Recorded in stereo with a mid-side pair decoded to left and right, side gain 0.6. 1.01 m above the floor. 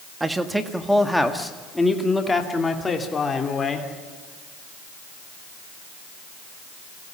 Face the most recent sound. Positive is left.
turn(degrees=25)